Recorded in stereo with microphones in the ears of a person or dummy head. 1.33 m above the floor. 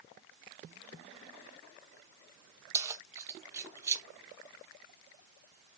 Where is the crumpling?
I don't hear crumpling.